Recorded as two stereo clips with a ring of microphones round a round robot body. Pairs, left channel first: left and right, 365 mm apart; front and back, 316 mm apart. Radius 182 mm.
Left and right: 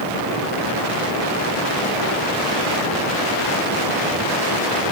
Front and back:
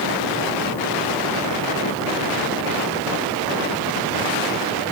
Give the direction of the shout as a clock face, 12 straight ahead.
No shout in this recording.